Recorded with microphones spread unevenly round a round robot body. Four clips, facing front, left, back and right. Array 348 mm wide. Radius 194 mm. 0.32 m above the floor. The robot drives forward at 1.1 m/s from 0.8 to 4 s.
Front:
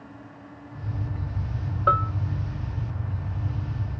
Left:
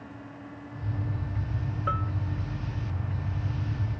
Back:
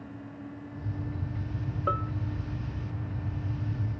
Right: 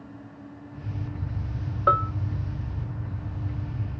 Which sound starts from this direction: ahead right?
A bell, at 1.9 s.